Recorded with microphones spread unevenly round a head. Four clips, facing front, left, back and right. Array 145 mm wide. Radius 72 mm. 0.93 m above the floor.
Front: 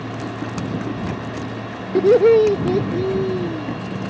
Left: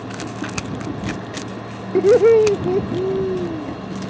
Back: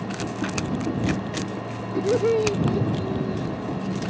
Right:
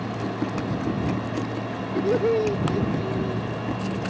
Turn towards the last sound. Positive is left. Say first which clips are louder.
# left 10 dB, front 9 dB
turn(degrees=45)